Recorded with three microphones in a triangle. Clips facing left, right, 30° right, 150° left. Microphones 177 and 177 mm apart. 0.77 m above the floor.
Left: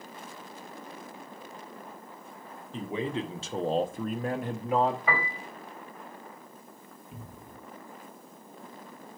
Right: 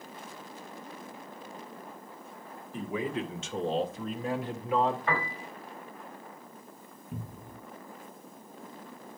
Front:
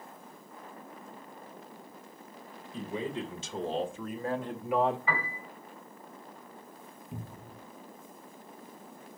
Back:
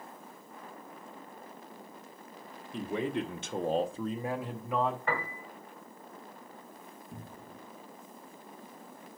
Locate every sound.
2.7 s a man speaking: 155° left, 1.4 m; by 5.0 s 40° left, 1.0 m
5.1 s a piano: 175° left, 2 m
7.1 s a cupboard door: 100° right, 0.7 m